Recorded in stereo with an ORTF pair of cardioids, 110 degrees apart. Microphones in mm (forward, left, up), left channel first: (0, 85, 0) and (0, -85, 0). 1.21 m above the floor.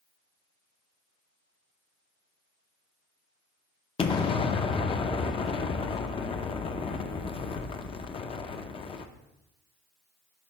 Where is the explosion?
30° left, 0.6 m.